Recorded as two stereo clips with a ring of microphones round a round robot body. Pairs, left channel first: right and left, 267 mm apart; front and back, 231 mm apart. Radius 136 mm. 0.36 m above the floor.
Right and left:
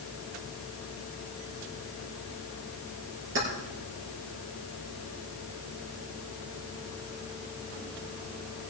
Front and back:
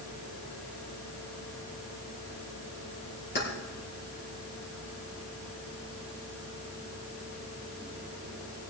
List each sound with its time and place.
3.4 s keys jangling: 40° left, 5 m